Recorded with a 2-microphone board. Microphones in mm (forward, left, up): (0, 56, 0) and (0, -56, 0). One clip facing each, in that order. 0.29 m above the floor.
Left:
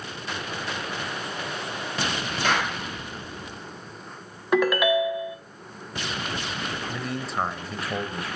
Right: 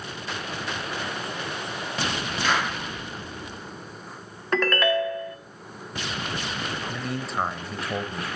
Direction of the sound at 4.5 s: 10° left (ahead or behind).